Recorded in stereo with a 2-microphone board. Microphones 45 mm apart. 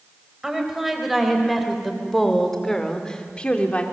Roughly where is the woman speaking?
Centre.